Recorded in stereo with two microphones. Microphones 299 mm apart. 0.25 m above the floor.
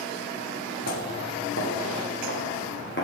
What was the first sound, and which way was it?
Footsteps, 45° left (ahead or behind).